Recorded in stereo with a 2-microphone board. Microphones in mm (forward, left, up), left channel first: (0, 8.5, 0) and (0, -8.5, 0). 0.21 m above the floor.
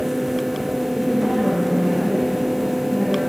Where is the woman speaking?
40° right (ahead or behind), 5 m.